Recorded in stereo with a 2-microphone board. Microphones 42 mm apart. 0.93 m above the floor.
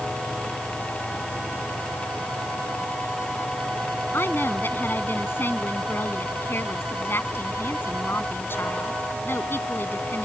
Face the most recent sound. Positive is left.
turn(degrees=60)  # may be behind; listen again after turning